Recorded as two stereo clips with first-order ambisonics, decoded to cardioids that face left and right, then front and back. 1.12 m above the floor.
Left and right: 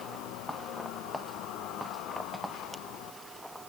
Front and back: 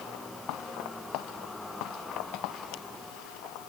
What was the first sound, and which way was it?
Only background noise.